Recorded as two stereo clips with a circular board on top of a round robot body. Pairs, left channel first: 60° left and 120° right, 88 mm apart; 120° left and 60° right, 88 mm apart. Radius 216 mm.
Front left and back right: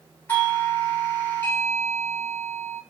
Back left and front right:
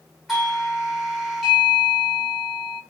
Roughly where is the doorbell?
Ahead left.